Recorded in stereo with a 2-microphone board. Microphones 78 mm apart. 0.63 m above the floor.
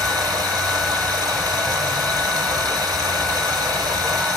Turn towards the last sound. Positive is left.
turn(degrees=-50)  # may be behind; listen again after turning